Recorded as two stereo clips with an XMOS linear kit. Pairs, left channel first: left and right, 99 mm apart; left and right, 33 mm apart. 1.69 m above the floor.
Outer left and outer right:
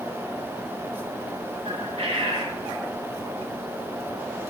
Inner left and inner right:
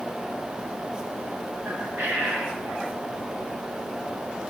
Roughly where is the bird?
Right.